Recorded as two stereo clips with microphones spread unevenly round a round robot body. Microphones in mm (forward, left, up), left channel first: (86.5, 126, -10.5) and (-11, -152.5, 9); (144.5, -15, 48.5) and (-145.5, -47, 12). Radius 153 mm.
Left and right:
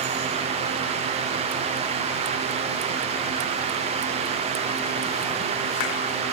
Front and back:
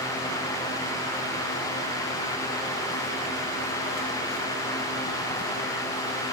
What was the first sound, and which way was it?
Only background noise.